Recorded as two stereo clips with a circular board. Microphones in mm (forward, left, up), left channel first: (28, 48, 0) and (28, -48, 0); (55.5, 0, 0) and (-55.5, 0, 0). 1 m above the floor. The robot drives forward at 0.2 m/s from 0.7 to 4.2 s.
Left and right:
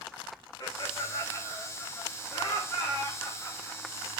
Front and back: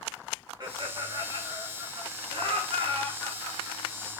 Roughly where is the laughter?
Behind left.